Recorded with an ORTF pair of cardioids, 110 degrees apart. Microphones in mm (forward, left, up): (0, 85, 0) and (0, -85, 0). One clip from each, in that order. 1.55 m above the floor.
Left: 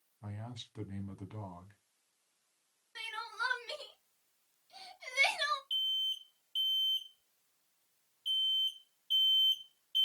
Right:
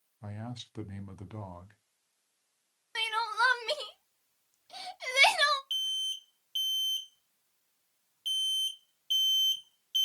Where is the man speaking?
25° right, 0.8 m.